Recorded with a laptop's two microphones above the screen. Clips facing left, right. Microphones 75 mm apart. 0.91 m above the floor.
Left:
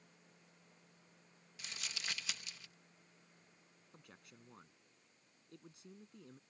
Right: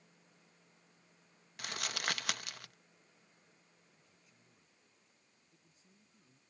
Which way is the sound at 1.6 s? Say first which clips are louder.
Right 9 dB; 60° right (ahead or behind).